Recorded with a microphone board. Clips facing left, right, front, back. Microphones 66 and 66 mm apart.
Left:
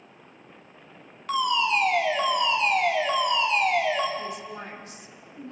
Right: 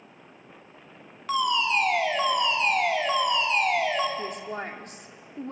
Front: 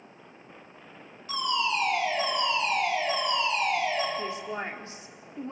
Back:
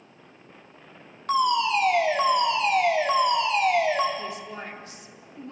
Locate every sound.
1.3 s a fire alarm: straight behind, 4.5 m
4.2 s a woman speaking: 60° right, 2.5 m